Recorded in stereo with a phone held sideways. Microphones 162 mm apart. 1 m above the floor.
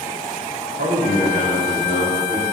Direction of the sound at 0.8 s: 70° right (ahead or behind).